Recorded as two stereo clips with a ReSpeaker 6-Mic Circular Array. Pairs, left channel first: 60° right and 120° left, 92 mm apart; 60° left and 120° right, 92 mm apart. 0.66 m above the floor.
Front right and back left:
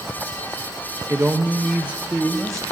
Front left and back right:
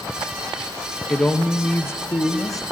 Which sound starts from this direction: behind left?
A man speaking, at 1.1 s.